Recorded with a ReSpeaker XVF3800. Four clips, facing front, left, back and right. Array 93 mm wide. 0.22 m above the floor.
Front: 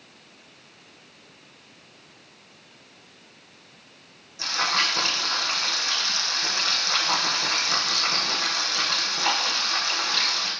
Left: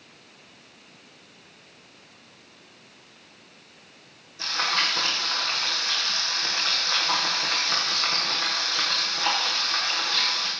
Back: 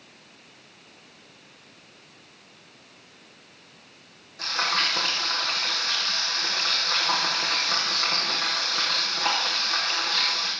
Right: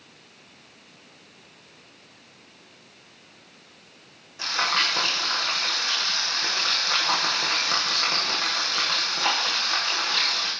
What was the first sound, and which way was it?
Frying, 125° right.